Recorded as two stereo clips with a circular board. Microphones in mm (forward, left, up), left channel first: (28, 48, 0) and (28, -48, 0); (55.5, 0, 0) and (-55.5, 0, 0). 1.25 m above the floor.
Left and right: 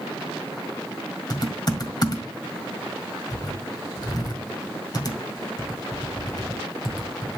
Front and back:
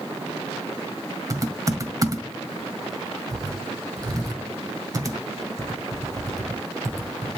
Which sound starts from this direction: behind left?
Typing on a keyboard, at 1.3 s.